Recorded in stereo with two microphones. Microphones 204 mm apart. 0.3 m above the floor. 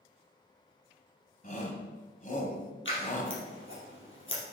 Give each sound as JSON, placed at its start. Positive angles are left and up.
{"t": 1.4, "sound": "a shout", "side_deg": 40, "distance_m": 2.0}
{"t": 2.9, "sound": "scissors", "side_deg": 75, "distance_m": 4.0}